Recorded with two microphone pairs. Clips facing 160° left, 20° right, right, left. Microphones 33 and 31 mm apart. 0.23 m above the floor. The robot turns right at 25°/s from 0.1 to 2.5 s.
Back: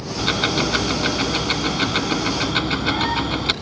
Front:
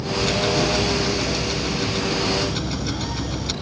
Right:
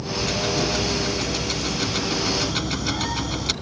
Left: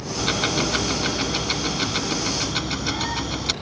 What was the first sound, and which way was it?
Ticking, 120° left.